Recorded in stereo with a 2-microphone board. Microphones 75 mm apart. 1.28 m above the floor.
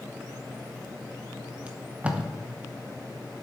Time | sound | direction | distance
1.7 | tape being pulled | 15° right (ahead or behind) | 1.0 m